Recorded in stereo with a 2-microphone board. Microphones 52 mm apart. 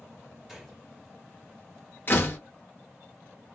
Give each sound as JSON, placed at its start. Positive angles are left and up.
{"t": 0.5, "sound": "a gunshot", "side_deg": -5, "distance_m": 1.2}
{"t": 2.1, "sound": "a door slam", "side_deg": 40, "distance_m": 0.7}